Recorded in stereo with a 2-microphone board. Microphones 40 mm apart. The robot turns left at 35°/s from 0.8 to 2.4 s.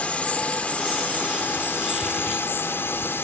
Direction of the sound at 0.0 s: 145° left.